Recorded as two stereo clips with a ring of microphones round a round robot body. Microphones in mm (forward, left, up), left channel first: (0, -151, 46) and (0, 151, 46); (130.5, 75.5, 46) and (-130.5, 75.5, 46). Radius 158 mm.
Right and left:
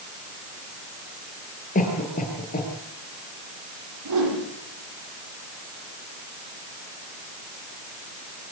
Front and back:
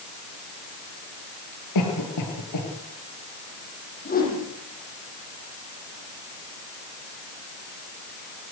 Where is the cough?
25° right, 7.5 m.